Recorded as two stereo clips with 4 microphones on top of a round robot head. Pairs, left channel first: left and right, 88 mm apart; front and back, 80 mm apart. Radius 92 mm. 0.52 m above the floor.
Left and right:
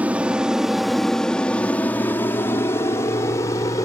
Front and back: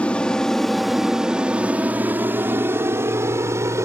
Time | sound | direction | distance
0.0 | an aircraft | 50° right | ?